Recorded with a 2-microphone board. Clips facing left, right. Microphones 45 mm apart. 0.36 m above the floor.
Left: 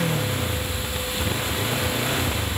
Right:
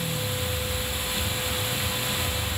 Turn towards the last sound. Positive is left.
turn(degrees=55)  # may be behind; listen again after turning